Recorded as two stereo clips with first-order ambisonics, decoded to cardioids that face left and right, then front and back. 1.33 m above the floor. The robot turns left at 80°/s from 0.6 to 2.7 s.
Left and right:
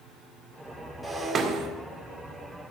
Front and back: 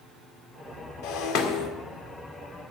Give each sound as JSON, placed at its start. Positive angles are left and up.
{"t": 1.0, "sound": "breaking glass", "azimuth_deg": 5, "distance_m": 1.6}